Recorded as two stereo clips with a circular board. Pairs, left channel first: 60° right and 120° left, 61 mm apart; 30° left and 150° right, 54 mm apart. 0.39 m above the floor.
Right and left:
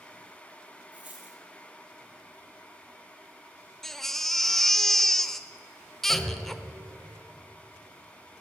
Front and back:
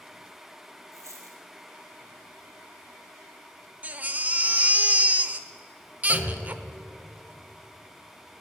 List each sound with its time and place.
0.9 s a dropped coin: 170° right, 1.8 m
3.8 s a baby crying: 140° right, 0.5 m
6.1 s a clunk: 155° right, 4 m